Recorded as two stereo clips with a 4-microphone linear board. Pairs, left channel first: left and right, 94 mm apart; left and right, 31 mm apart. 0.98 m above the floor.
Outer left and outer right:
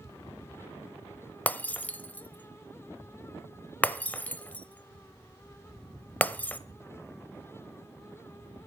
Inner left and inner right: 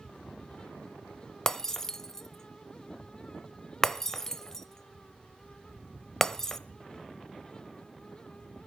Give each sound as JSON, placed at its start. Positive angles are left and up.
{"t": 1.5, "sound": "breaking glass", "side_deg": 15, "distance_m": 0.8}